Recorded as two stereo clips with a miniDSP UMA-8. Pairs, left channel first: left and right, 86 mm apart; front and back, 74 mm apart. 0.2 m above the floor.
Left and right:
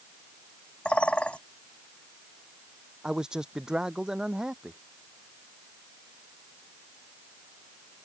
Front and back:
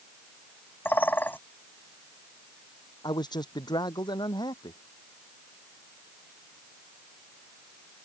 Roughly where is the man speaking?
Ahead.